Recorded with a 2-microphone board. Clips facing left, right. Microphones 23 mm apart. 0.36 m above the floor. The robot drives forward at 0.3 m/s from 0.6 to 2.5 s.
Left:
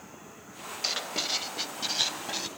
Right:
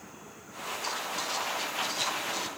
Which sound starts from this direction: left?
Writing, at 0.8 s.